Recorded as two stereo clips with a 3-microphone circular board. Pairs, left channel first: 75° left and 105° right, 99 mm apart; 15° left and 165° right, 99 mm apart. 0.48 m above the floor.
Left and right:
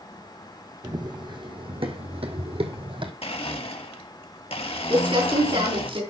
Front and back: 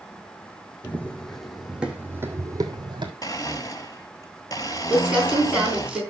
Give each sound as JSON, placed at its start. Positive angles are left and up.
{"t": 0.8, "sound": "running footsteps", "azimuth_deg": -60, "distance_m": 1.9}
{"t": 3.2, "sound": "a blender", "azimuth_deg": 65, "distance_m": 1.4}
{"t": 4.9, "sound": "crumpling", "azimuth_deg": -85, "distance_m": 4.0}